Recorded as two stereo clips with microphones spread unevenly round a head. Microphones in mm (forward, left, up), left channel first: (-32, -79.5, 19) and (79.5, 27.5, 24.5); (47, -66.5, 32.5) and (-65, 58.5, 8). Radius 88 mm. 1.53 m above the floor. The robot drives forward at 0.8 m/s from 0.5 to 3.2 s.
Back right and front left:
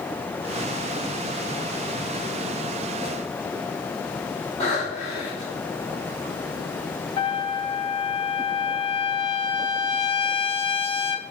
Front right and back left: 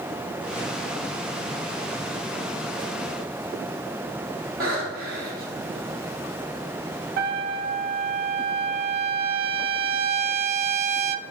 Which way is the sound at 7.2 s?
160° left.